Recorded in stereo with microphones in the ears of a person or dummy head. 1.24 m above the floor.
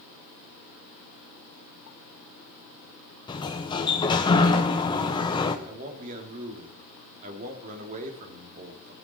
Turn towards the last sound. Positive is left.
turn(degrees=-40)  # may be behind; listen again after turning